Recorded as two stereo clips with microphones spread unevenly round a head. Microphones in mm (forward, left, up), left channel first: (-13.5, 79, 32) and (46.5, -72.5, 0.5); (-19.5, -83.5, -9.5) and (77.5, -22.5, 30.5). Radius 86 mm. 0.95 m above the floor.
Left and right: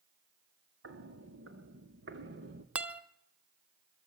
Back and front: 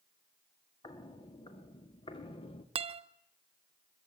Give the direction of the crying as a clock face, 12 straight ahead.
I don't hear crying.